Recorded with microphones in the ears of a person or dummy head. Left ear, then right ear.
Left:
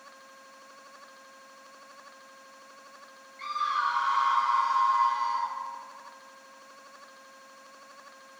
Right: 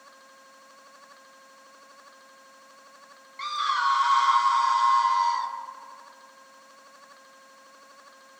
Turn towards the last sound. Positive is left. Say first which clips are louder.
# right 3 dB
turn(degrees=-35)  # may be behind; listen again after turning